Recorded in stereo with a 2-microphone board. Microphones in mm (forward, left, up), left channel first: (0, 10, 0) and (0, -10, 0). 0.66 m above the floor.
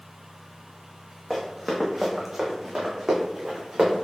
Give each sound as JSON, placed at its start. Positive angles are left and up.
{"t": 1.3, "sound": "running footsteps", "side_deg": 20, "distance_m": 1.5}